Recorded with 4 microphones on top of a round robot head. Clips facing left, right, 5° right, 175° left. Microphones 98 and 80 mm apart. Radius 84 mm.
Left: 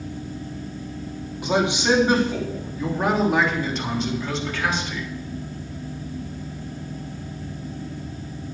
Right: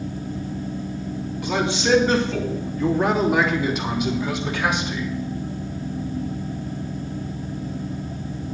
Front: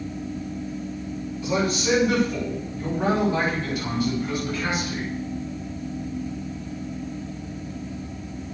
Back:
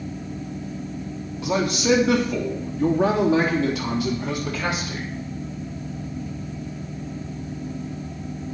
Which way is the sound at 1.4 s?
160° left.